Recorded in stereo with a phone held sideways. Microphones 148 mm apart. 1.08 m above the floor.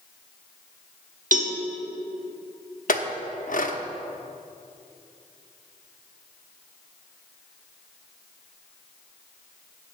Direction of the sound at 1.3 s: 60° right (ahead or behind).